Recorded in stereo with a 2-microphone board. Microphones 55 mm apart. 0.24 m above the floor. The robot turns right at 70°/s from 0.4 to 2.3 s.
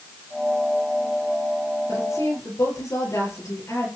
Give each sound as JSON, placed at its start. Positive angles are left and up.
{"t": 1.9, "sound": "a woman speaking", "side_deg": 70, "distance_m": 5.5}